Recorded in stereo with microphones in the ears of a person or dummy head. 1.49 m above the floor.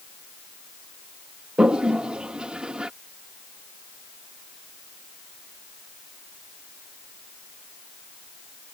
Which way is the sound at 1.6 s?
Centre (ahead or behind).